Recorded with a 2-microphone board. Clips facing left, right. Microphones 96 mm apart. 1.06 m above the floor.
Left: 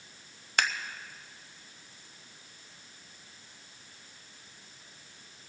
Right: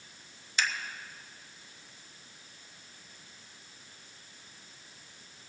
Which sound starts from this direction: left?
Scissors, at 0.6 s.